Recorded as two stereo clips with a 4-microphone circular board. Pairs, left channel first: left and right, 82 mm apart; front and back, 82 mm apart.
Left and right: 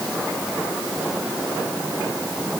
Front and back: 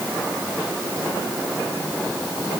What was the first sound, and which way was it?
Only background noise.